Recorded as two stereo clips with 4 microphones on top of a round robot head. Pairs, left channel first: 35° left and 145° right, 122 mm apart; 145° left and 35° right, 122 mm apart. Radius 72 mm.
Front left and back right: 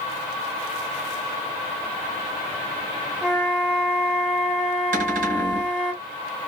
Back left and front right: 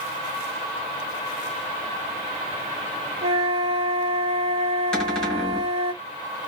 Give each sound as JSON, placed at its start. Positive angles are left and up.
{"t": 3.2, "sound": "a flute", "azimuth_deg": -65, "distance_m": 1.5}
{"t": 4.9, "sound": "a cupboard door", "azimuth_deg": -130, "distance_m": 1.5}